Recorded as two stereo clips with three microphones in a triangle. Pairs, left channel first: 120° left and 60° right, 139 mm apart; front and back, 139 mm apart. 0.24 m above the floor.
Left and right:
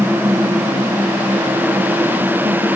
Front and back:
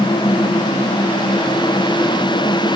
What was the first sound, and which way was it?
Only background noise.